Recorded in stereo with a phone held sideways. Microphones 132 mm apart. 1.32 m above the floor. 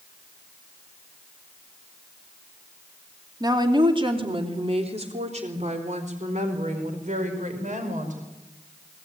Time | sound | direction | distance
3.4 | a woman speaking | 30° right (ahead or behind) | 3 m